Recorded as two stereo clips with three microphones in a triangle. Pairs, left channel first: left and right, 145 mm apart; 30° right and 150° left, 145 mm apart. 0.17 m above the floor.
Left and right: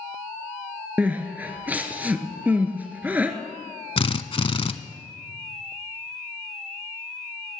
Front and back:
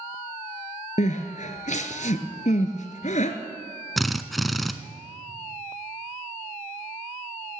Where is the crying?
10° right, 1.1 m.